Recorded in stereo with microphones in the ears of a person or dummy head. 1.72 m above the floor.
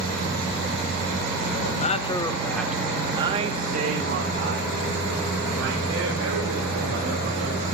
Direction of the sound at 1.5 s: 50° left (ahead or behind).